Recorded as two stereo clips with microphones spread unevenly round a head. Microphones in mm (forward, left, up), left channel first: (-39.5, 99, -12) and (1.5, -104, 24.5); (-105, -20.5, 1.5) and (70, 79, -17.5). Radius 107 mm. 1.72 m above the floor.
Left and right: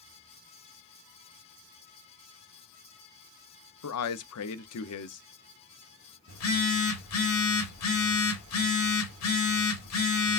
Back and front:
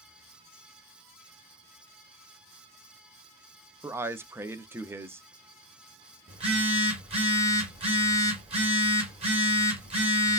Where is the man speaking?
110° left, 0.6 m.